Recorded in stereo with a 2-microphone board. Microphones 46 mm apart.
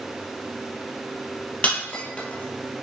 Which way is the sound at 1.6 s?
30° left (ahead or behind).